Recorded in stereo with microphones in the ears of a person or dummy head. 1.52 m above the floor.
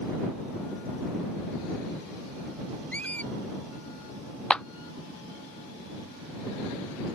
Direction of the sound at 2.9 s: 5° left (ahead or behind).